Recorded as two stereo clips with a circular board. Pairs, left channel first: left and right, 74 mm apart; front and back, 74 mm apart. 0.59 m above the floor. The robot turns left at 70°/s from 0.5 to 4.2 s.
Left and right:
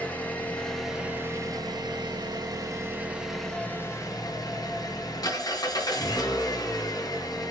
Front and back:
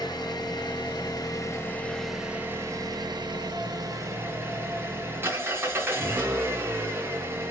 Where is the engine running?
20° left, 4 m; by 7.5 s 120° left, 4 m.